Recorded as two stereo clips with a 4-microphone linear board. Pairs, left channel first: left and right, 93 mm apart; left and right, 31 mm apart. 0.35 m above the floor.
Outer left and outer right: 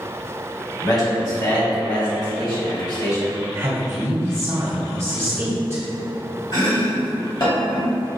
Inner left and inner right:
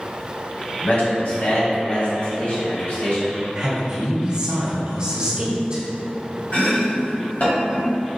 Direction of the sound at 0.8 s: 55° left (ahead or behind).